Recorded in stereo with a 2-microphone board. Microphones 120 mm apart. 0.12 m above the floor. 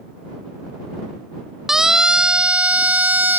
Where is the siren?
5° right (ahead or behind); by 3.4 s 15° right (ahead or behind).